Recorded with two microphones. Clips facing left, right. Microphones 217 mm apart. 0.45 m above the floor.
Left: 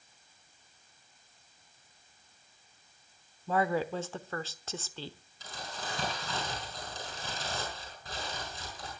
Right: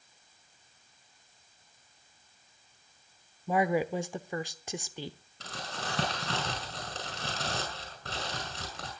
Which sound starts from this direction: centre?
A woman speaking, at 3.5 s.